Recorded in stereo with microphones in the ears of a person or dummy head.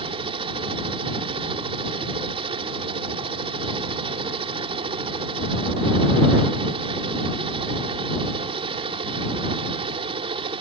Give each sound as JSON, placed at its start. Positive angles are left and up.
{"t": 0.0, "sound": "a helicopter", "side_deg": -35}